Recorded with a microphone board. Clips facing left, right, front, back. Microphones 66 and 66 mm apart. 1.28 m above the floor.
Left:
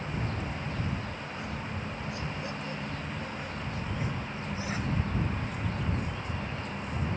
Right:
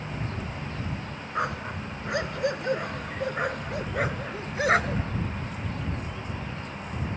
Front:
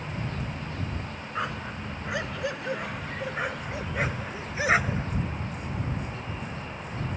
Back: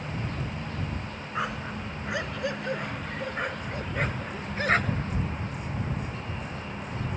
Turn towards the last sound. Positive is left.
turn(degrees=-80)